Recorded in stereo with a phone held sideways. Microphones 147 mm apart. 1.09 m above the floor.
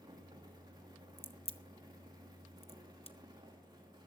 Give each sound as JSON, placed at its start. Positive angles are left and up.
{"t": 0.0, "sound": "a fan", "side_deg": -30, "distance_m": 2.5}
{"t": 1.2, "sound": "a crack", "side_deg": 40, "distance_m": 0.9}